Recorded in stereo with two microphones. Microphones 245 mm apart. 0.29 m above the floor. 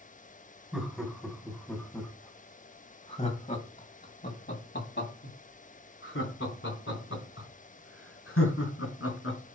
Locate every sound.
0.7 s laughter: 5° right (ahead or behind), 2.5 m; by 9.4 s 70° left (ahead or behind), 4 m